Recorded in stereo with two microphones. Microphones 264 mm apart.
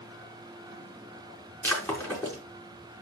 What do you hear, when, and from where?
1.6 s breaking glass: 10° left (ahead or behind), 4.5 m